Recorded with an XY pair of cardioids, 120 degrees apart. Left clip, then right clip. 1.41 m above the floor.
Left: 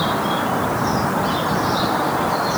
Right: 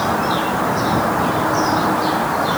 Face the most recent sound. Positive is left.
No sound to turn to.